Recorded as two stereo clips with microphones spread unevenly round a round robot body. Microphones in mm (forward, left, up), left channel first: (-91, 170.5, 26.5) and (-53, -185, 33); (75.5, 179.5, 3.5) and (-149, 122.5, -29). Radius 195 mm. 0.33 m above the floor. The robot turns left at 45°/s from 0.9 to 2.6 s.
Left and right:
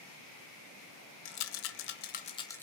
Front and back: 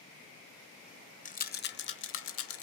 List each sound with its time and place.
1.2 s a rattle: 75° left, 0.8 m; by 2.6 s 15° left, 0.8 m